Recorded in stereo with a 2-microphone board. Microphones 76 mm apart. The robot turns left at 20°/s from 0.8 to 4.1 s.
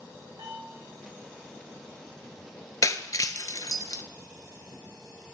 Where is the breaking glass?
50° left (ahead or behind), 0.6 m; by 4.0 s 55° left (ahead or behind), 0.6 m.